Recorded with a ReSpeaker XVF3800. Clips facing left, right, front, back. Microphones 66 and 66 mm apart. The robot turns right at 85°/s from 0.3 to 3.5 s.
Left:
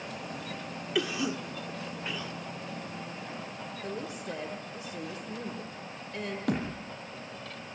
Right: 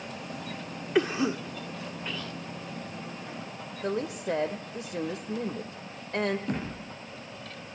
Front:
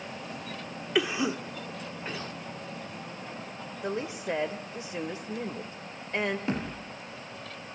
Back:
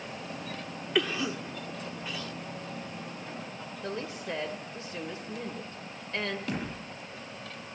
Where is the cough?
80° right, 1.4 m; by 2.3 s 35° left, 1.4 m.